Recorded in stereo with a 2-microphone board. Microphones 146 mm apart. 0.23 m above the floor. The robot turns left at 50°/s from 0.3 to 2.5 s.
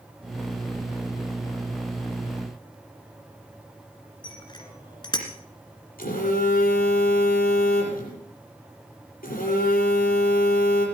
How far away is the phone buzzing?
About 6 m.